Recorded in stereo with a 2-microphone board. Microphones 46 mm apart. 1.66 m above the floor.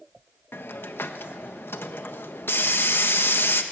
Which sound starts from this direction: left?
A hiss, at 0.5 s.